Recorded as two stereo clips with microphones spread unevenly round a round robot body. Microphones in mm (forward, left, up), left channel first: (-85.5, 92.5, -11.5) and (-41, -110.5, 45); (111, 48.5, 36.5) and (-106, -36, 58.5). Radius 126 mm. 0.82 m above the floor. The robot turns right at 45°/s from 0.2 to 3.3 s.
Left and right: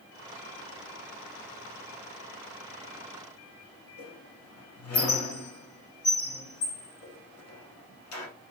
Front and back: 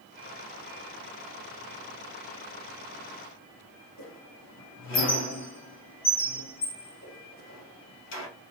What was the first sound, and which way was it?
A squeak, 65° left.